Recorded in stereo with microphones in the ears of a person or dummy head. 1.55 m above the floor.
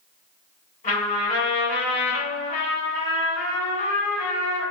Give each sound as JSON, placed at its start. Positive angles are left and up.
{"t": 0.8, "sound": "a trumpet", "side_deg": 25, "distance_m": 1.5}